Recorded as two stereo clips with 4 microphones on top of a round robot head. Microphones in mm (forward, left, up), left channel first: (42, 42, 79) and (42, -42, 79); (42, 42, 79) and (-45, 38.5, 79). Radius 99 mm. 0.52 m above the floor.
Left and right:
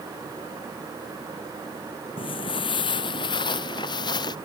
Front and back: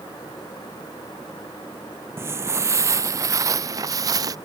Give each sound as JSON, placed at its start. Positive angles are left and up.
{"t": 2.2, "sound": "footsteps", "azimuth_deg": 120}